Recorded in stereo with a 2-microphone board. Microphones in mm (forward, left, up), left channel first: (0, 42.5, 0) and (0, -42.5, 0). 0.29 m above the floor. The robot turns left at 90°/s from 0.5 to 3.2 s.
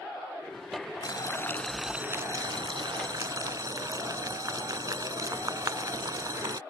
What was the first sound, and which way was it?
Boiling, 65° left.